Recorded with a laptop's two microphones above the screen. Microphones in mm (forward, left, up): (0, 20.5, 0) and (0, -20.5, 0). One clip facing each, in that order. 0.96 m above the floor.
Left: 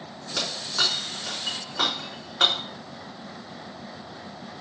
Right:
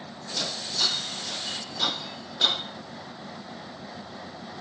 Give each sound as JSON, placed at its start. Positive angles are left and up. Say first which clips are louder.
{"t": 0.4, "sound": "breaking glass", "louder": "left 3 dB", "side_deg": 70, "distance_m": 3.5}